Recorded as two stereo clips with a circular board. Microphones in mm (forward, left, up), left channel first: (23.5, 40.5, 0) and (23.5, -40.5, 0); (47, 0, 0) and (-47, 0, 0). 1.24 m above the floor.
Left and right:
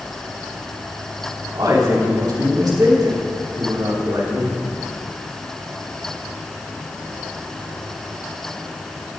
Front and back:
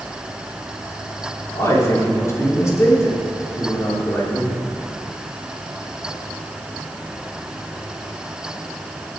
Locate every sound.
1.5 s a man speaking: 55° right, 3 m